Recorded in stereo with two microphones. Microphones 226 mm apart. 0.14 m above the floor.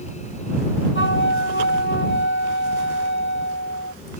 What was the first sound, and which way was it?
A flute, 55° left (ahead or behind).